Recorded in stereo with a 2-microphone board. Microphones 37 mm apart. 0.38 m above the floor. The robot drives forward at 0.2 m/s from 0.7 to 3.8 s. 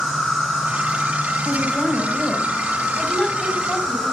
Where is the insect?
5° right (ahead or behind), 7 m.